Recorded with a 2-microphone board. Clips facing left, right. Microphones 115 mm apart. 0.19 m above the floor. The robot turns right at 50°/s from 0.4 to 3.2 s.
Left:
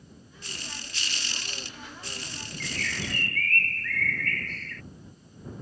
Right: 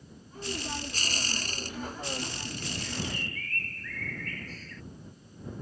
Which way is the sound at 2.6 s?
85° left.